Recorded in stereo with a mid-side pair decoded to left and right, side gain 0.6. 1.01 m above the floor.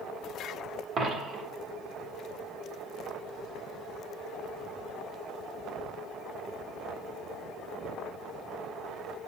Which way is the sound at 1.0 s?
40° right.